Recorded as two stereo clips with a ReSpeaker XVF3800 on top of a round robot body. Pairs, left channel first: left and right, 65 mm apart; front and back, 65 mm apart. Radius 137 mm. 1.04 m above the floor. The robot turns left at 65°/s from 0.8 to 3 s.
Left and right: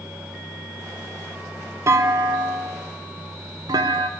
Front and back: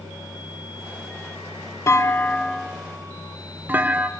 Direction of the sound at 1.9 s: 45° right.